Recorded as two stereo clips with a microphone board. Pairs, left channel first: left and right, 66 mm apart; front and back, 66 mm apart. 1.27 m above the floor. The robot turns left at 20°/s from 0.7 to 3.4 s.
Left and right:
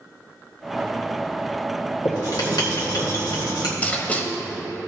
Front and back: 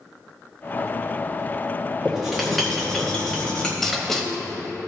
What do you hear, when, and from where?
2.0 s writing: 100° left, 1.9 m; by 3.7 s 75° left, 1.9 m
3.8 s writing: 80° left, 1.1 m